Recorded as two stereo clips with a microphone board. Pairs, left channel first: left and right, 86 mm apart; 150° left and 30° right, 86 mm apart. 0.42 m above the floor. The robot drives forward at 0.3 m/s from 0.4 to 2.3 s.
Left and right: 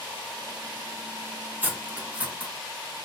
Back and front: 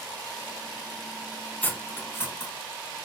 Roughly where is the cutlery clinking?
Behind right.